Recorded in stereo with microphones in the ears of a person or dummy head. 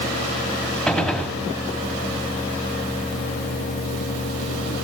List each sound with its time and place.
0.9 s a gunshot: centre (ahead or behind), 1.8 m